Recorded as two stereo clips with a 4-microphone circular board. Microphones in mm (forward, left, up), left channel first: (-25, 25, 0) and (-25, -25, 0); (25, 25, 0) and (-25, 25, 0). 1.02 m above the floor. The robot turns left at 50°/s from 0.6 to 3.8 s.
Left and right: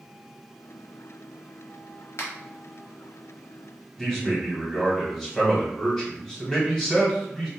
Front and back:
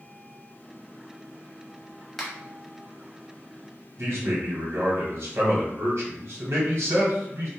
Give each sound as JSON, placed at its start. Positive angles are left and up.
{"t": 2.2, "sound": "a finger snap", "azimuth_deg": 90, "distance_m": 0.9}
{"t": 4.0, "sound": "a man speaking", "azimuth_deg": 165, "distance_m": 1.4}